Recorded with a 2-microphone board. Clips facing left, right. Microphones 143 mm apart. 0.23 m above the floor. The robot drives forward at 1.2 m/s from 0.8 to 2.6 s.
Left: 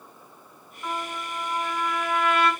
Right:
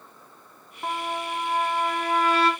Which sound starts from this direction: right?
A trumpet, at 0.8 s.